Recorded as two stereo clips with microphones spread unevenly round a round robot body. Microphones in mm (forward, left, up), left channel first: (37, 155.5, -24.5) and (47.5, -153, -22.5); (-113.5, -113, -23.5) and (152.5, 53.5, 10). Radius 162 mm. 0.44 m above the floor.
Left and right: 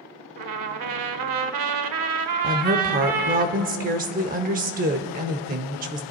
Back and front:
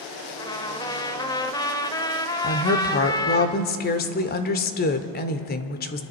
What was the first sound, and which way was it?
A trumpet, 70° right.